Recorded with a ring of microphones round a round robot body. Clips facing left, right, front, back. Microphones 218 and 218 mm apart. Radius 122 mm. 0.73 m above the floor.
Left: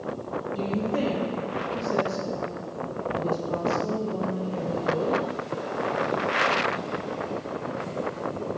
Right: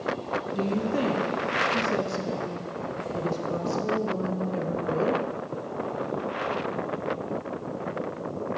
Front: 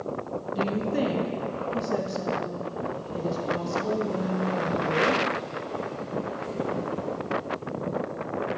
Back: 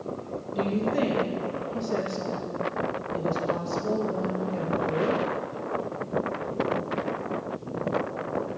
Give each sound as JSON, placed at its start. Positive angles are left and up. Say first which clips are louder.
{"t": 0.5, "sound": "a woman speaking", "louder": "even, back 1 dB", "azimuth_deg": -65, "distance_m": 0.8}